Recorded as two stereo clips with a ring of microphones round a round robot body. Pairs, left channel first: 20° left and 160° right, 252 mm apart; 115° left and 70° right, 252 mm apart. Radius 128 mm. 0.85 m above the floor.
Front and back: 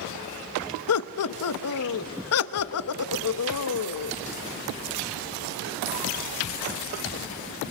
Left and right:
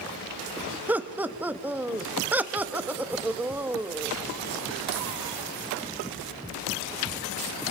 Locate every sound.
0.9 s laughter: 15° left, 1.2 m